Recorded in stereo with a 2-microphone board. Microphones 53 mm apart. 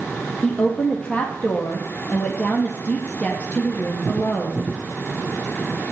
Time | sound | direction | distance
0.4 | a woman speaking | 30° left (ahead or behind) | 3.5 m